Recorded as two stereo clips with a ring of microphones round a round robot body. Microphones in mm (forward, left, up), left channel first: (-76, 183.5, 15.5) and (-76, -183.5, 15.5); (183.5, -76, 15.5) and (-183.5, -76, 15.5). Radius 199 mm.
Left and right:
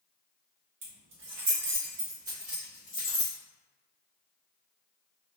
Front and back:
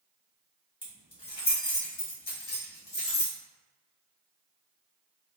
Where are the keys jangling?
75° right, 1.3 m; by 3.4 s 45° left, 1.0 m.